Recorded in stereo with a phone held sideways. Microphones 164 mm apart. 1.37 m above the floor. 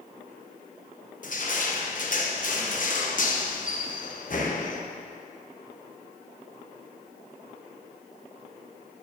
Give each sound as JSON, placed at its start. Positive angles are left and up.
{"t": 1.2, "sound": "crushing", "side_deg": 55, "distance_m": 0.9}